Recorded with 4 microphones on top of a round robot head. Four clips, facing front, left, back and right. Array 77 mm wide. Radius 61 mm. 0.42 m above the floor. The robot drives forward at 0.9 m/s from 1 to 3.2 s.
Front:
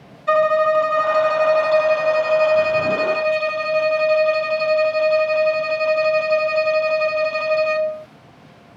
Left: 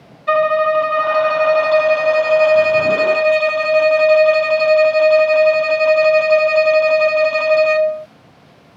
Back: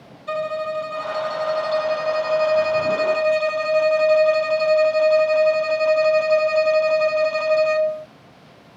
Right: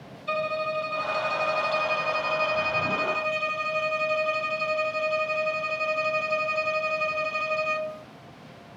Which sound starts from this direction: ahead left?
A violin, at 0.3 s.